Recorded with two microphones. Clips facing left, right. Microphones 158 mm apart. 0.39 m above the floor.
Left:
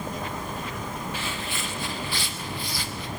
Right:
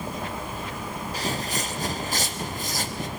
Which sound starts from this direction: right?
Footsteps, at 1.1 s.